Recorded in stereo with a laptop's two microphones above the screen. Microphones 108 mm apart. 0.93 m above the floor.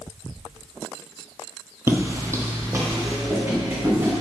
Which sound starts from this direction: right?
Footsteps, at 1.9 s.